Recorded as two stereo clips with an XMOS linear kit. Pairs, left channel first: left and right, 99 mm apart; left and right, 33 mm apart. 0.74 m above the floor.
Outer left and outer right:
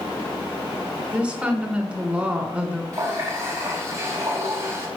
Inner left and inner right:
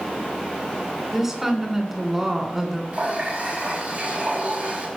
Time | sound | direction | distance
1.1 | a woman speaking | 10° right (ahead or behind) | 2.5 m
2.9 | a running tap | 30° right (ahead or behind) | 3.5 m